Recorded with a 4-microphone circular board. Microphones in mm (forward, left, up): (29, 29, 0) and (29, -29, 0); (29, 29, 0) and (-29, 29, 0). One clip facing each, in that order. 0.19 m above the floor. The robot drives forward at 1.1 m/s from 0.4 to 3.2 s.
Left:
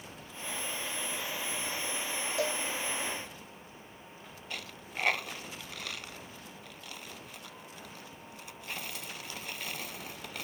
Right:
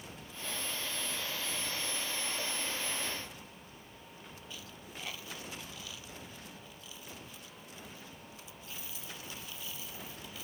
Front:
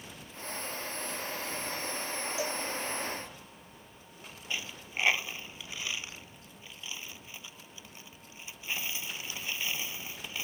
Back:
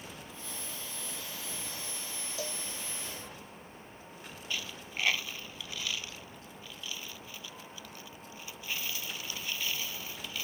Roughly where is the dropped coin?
Left.